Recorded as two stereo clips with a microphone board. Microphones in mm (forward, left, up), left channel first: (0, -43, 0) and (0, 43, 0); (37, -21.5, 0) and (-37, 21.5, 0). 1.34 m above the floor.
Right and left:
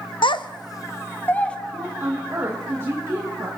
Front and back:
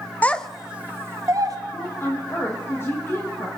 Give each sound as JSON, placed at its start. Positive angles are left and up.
{"t": 0.2, "sound": "a child speaking", "azimuth_deg": -100, "distance_m": 0.6}
{"t": 1.7, "sound": "a woman speaking", "azimuth_deg": 30, "distance_m": 1.7}